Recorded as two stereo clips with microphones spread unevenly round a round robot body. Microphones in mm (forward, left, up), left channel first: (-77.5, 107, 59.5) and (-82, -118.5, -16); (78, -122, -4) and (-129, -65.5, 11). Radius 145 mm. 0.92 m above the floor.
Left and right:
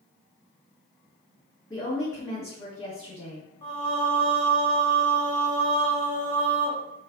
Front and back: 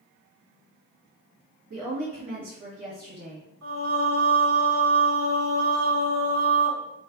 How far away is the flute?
I don't hear a flute.